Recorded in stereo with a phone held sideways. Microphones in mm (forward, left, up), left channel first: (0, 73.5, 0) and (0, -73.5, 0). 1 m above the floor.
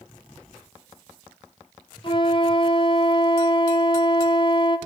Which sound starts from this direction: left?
A flute, at 2.0 s.